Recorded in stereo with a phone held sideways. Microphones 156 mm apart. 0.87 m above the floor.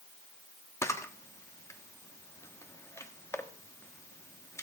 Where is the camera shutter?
20° left (ahead or behind), 1.3 m.